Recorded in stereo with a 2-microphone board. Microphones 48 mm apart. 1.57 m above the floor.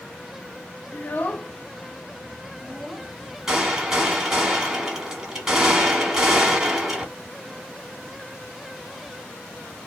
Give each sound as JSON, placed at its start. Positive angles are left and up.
{"t": 0.9, "sound": "a child speaking", "side_deg": 45, "distance_m": 0.6}
{"t": 3.5, "sound": "a gunshot", "side_deg": -10, "distance_m": 1.3}